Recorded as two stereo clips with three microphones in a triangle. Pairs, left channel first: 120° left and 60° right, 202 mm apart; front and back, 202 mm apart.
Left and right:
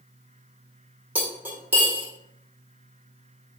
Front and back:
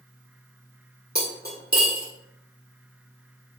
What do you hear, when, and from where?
1.1 s cutlery clinking: 140° right, 1.4 m